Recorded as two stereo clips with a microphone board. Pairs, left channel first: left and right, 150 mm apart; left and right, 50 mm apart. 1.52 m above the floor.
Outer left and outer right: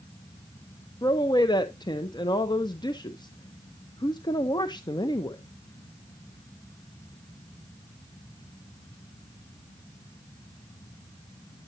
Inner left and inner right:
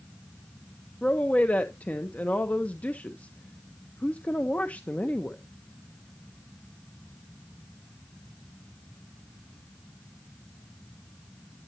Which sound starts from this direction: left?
A woman speaking, at 1.0 s.